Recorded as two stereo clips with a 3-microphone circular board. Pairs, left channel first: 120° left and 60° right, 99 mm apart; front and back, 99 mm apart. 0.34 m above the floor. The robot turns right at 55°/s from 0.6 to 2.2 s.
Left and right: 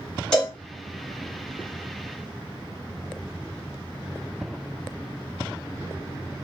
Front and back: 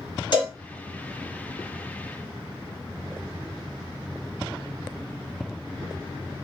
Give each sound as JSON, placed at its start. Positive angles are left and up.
{"t": 0.3, "sound": "a cowbell", "azimuth_deg": 40, "distance_m": 1.5}